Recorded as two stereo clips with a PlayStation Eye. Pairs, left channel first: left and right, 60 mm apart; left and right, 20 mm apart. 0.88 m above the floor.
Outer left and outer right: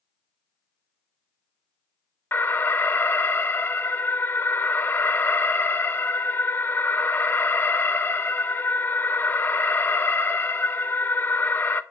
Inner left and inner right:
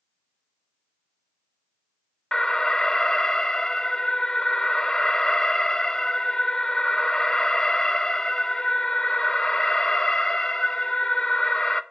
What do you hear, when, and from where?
2.3 s an alarm: 35° left (ahead or behind), 0.7 m